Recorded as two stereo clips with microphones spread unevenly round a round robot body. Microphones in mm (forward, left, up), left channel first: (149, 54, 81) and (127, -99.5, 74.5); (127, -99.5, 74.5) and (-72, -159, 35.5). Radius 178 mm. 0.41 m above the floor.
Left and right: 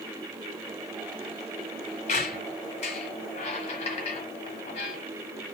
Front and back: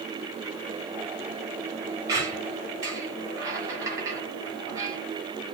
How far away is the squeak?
About 0.9 m.